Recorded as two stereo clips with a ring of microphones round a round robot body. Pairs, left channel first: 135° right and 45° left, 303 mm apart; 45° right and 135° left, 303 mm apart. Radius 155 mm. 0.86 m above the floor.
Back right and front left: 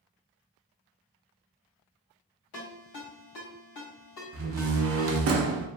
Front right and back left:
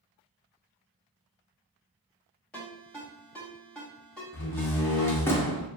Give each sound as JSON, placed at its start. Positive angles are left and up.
{"t": 2.5, "sound": "a ringtone", "azimuth_deg": -130, "distance_m": 1.7}
{"t": 4.3, "sound": "a door slam", "azimuth_deg": 35, "distance_m": 0.6}